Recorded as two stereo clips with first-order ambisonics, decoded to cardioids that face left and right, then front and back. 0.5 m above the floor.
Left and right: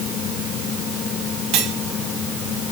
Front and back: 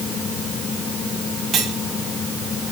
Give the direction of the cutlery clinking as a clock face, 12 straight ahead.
4 o'clock.